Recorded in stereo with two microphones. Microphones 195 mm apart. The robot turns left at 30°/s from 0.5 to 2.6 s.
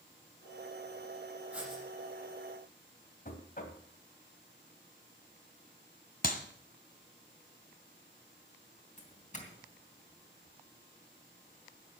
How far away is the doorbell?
About 3 m.